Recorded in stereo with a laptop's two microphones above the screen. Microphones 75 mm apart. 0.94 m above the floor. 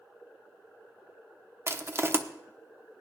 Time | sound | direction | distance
1.7 | crushing | 35° right (ahead or behind) | 1.0 m